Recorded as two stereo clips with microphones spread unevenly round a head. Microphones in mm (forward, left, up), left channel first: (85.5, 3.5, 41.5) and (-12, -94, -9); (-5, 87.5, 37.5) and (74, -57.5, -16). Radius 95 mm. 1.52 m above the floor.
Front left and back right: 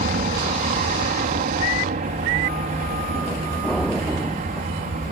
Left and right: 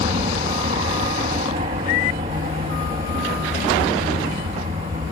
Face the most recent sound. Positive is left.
turn(degrees=-120)